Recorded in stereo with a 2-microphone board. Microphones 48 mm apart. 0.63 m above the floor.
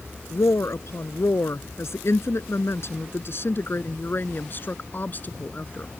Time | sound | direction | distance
0.3 | a woman speaking | 75° left (ahead or behind) | ?